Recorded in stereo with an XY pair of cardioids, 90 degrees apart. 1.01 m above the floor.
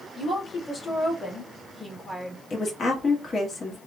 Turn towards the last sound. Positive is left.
turn(degrees=50)